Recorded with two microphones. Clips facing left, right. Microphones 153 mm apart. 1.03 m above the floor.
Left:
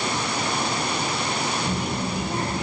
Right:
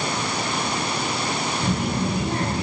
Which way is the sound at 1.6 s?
80° right.